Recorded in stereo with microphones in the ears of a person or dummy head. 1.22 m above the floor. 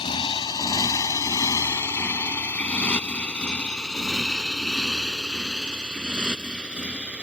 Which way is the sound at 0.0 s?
25° left (ahead or behind).